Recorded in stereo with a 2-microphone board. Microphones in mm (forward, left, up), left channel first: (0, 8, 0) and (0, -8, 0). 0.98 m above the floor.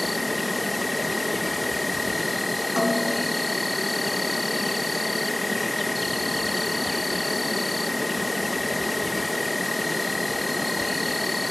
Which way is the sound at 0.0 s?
5° right (ahead or behind).